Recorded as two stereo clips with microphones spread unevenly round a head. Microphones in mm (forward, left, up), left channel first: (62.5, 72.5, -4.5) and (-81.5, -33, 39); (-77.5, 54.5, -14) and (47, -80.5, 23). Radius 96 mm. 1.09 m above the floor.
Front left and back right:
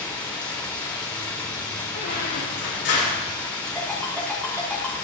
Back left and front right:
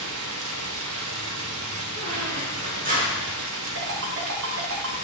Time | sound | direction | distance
0.0 | running water | 45° right | 1.9 m
1.9 | a squeak | straight ahead | 7.5 m
3.8 | a ringtone | 50° right | 4.5 m